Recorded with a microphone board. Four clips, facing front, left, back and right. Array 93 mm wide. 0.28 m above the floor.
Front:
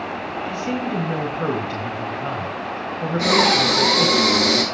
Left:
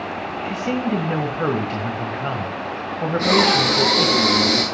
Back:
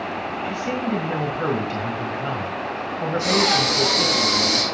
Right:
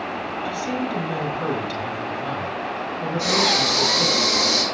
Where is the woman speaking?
95° left, 1.7 m.